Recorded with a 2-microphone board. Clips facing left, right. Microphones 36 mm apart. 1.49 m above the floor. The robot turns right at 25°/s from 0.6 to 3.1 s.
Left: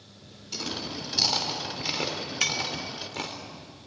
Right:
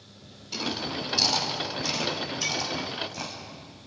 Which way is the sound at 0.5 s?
10° right (ahead or behind).